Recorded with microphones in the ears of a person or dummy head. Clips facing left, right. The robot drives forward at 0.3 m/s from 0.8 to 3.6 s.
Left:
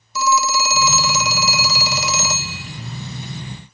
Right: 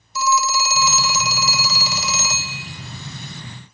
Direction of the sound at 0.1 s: 60° left (ahead or behind).